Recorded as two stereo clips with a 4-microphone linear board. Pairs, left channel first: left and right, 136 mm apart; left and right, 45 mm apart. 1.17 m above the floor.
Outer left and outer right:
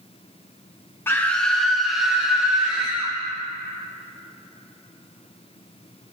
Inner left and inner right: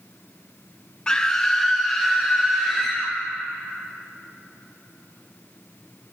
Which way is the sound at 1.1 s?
15° left (ahead or behind).